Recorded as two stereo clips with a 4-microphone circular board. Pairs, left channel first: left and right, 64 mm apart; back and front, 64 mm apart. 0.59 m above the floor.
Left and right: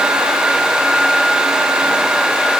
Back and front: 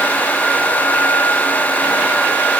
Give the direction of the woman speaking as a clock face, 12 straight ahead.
No woman speaking in this recording.